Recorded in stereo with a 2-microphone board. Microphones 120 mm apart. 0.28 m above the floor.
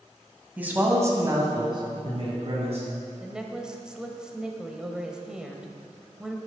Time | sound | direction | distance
0.6 | a man speaking | 15° right (ahead or behind) | 1.8 m
3.2 | a woman speaking | 5° right (ahead or behind) | 0.9 m